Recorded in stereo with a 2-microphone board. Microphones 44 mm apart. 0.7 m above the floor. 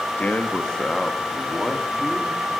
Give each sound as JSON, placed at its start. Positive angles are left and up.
{"t": 0.2, "sound": "a man speaking", "side_deg": 35, "distance_m": 0.9}